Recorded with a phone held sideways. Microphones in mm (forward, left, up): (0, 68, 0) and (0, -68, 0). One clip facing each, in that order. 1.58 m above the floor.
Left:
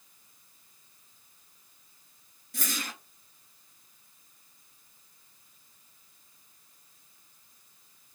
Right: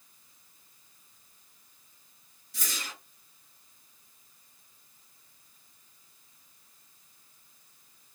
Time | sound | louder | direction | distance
2.5 | a whoosh | left 5 dB | 55° left (ahead or behind) | 1.4 m